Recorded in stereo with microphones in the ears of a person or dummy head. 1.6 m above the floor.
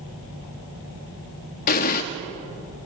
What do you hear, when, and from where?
1.7 s an explosion: 40° left (ahead or behind), 1.4 m